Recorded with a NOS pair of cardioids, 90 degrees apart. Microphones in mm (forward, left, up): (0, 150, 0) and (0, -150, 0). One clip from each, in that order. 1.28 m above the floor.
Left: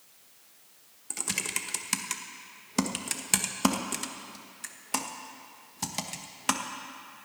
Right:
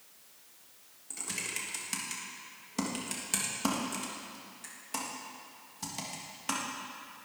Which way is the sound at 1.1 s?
45° left.